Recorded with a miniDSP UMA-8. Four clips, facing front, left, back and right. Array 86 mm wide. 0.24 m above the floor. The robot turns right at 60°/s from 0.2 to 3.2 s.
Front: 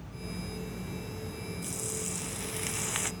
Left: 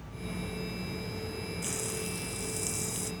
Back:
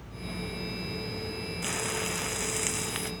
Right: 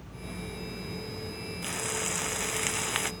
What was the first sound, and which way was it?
Frying, 160° right.